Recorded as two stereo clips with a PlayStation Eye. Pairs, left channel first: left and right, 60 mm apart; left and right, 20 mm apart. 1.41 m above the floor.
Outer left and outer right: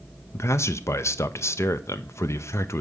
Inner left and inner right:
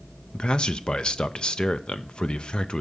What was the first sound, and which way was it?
A man speaking, 50° left (ahead or behind).